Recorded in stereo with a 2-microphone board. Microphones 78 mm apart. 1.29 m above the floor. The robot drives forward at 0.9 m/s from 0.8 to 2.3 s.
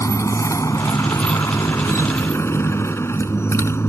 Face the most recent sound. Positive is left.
turn(degrees=35)  # may be behind; listen again after turning